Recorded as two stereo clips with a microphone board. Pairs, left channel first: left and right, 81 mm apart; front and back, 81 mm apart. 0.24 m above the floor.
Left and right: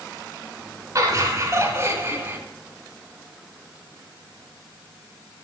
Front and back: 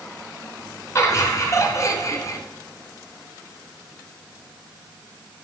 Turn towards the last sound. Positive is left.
turn(degrees=-30)